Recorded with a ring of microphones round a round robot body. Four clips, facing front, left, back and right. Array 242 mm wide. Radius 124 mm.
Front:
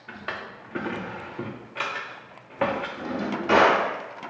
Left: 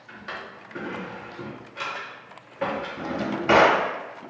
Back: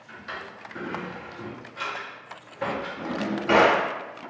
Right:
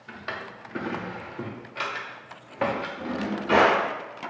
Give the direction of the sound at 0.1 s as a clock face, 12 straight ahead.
1 o'clock.